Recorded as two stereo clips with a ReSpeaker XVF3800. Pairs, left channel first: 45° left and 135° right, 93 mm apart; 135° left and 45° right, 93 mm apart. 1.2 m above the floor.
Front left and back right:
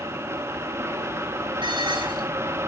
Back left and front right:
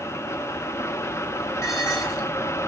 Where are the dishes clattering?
170° right, 4.5 m.